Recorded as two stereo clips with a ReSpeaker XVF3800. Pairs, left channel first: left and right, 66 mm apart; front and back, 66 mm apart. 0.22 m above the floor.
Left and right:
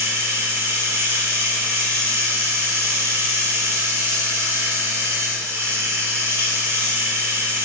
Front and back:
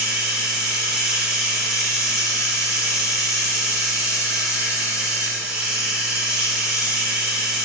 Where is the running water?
110° right, 0.9 m.